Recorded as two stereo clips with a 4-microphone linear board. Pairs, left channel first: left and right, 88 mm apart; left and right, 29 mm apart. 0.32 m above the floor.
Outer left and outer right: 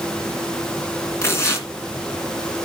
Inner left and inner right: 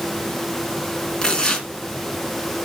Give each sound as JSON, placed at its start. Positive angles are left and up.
{"t": 1.2, "sound": "tearing paper", "side_deg": 30, "distance_m": 2.5}